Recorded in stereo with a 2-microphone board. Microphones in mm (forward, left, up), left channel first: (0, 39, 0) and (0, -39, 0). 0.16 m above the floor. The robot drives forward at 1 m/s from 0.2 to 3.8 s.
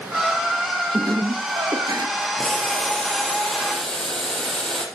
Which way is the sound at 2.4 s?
10° left (ahead or behind).